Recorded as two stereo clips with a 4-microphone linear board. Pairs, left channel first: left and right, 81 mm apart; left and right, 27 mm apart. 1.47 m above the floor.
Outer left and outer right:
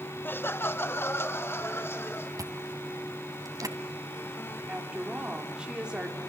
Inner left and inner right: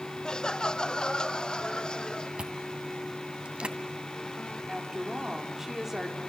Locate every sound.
0.2 s laughter: 25° left (ahead or behind), 0.8 m; by 2.3 s 30° left (ahead or behind), 4 m
2.4 s chewing: 50° right (ahead or behind), 2 m
4.7 s a woman speaking: 10° right (ahead or behind), 4 m